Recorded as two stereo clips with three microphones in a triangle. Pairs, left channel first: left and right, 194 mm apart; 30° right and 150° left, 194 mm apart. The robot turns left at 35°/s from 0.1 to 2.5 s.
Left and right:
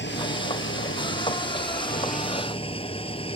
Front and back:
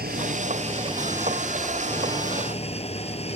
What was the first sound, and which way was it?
An engine running, 110° left.